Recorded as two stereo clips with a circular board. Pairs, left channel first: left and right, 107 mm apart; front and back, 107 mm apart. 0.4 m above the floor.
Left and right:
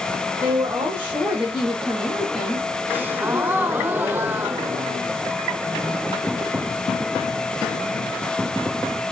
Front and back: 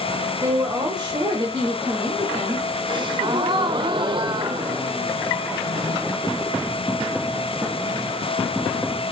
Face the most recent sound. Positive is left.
turn(degrees=-160)